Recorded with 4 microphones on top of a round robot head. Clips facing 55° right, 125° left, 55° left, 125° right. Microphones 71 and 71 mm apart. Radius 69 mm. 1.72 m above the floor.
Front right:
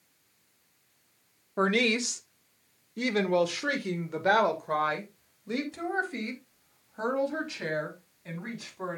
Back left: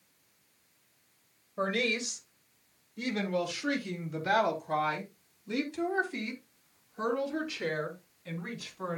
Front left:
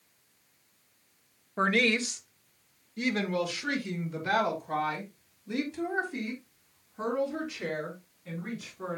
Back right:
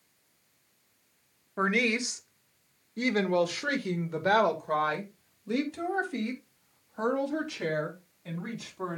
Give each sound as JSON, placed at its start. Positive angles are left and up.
{"t": 1.6, "sound": "a woman speaking", "azimuth_deg": -40, "distance_m": 1.4}